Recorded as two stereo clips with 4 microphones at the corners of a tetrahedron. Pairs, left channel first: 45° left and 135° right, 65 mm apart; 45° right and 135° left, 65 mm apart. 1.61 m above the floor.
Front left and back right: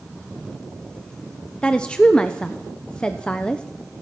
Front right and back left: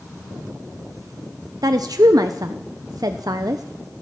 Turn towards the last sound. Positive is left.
turn(degrees=120)